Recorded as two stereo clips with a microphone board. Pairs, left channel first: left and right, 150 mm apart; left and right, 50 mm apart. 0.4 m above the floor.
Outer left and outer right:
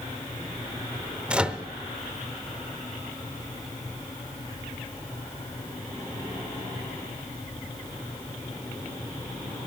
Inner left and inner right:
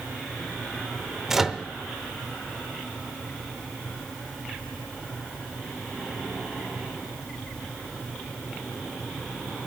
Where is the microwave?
5° right (ahead or behind), 0.7 m.